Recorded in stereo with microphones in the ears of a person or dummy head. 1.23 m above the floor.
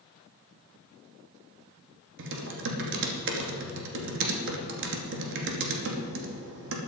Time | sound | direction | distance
2.2 | typing on a keyboard | 75° right (ahead or behind) | 2.5 m